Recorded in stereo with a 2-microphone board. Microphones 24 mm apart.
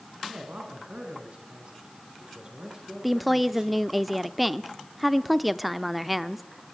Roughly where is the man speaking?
Right.